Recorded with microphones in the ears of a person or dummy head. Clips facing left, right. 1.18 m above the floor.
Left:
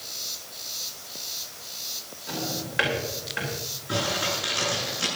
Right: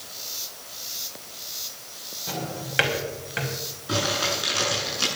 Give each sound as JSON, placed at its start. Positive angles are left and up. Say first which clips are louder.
{"t": 2.3, "sound": "a drawer", "louder": "even", "side_deg": -40, "distance_m": 4.5}
{"t": 3.9, "sound": "crumpling", "louder": "right 2 dB", "side_deg": -70, "distance_m": 7.5}